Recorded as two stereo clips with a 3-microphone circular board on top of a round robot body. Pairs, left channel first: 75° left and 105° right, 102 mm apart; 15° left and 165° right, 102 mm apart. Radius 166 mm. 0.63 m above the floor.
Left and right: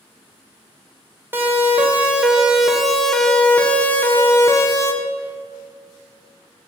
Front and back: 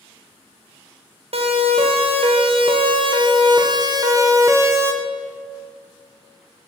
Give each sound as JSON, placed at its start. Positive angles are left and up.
{"t": 1.3, "sound": "a siren", "azimuth_deg": -175, "distance_m": 4.5}